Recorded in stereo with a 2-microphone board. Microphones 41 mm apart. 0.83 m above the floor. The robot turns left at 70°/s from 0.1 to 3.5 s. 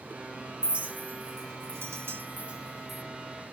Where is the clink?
20° right (ahead or behind), 0.5 m; by 3.0 s 10° left (ahead or behind), 0.5 m.